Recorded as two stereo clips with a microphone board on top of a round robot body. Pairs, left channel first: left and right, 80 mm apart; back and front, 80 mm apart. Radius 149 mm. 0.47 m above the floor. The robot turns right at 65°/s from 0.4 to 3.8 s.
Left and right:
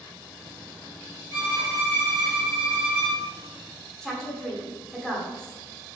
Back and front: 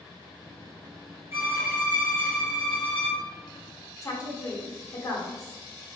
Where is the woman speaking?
170° left, 1.1 m.